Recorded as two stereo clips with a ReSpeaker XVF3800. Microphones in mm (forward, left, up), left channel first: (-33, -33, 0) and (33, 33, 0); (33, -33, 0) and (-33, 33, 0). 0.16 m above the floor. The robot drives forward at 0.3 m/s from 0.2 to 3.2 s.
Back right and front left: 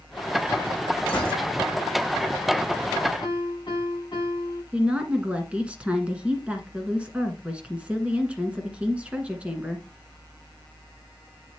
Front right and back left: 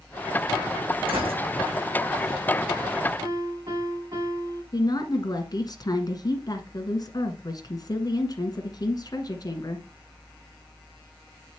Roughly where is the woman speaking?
Ahead right.